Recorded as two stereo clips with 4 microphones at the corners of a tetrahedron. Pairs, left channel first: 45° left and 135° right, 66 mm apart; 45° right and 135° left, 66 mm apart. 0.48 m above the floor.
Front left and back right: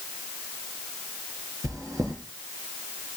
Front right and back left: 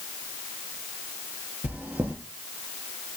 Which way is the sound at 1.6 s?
160° right.